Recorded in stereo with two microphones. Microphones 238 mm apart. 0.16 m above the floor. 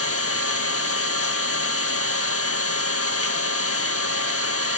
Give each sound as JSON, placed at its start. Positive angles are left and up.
{"t": 0.0, "sound": "an engine running", "side_deg": 70, "distance_m": 1.3}